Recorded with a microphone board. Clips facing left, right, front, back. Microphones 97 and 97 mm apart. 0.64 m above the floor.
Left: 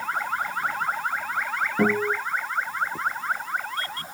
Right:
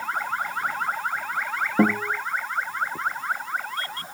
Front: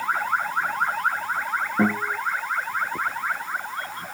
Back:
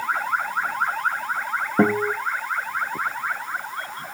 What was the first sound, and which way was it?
A guitar, 145° right.